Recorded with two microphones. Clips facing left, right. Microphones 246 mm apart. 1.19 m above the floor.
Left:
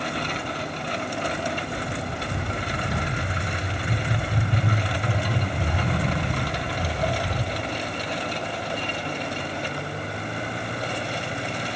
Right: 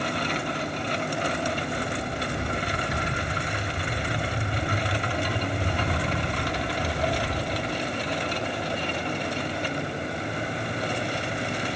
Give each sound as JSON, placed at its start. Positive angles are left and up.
{"t": 0.1, "sound": "footsteps", "side_deg": 65, "distance_m": 7.0}